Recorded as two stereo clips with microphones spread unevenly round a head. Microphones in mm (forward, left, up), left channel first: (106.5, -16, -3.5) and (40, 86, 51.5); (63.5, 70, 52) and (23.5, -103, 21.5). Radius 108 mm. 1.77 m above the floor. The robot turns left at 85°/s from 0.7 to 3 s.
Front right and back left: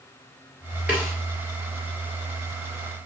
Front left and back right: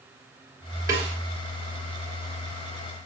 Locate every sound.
0.9 s a snare drum: 175° left, 1.9 m; by 1.1 s 155° left, 1.9 m